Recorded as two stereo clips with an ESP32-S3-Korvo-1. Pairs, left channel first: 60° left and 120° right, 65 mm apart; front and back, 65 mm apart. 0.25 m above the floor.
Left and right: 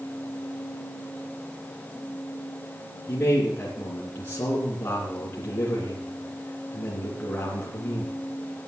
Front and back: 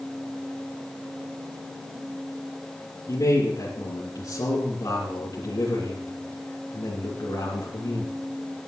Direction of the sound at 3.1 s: 5° left.